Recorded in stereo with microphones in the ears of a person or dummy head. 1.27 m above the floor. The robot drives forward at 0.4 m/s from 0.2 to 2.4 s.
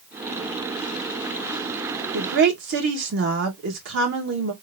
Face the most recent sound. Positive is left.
turn(degrees=-65)  # may be behind; listen again after turning